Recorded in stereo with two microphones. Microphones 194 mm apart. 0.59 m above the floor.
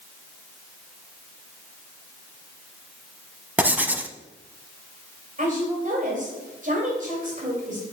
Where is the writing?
10° right (ahead or behind), 0.5 m.